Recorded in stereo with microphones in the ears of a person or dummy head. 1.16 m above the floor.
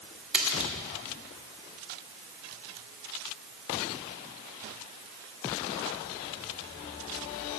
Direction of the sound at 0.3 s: 5° right (ahead or behind).